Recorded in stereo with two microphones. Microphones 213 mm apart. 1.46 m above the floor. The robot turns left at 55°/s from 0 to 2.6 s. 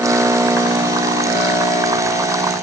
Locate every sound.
Only background noise.